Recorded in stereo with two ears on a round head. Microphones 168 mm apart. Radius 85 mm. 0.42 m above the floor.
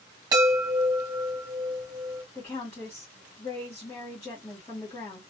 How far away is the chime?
About 1.9 m.